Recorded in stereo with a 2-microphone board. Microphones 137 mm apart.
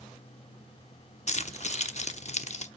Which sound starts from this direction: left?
Keys jangling, at 1.3 s.